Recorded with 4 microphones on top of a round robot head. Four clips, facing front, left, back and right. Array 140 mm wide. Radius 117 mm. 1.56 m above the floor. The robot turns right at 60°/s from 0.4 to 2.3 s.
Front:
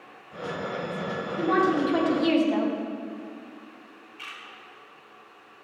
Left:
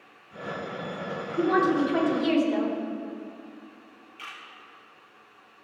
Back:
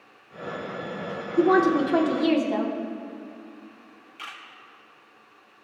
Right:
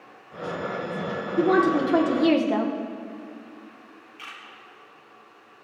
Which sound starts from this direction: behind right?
A woman speaking, at 1.4 s.